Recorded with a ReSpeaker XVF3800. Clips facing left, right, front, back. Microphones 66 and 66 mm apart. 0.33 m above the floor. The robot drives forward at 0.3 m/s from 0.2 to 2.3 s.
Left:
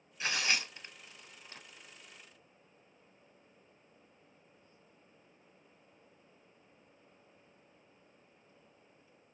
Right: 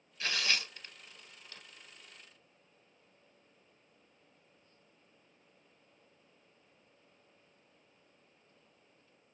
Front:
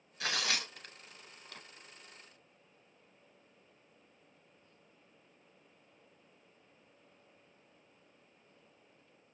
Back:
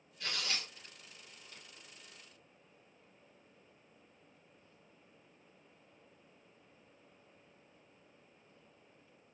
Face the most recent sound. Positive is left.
turn(degrees=40)